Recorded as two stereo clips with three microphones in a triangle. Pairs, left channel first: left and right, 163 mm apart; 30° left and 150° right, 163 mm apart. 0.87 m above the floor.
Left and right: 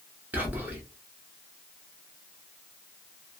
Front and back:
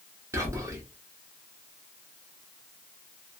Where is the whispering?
145° right, 0.7 m.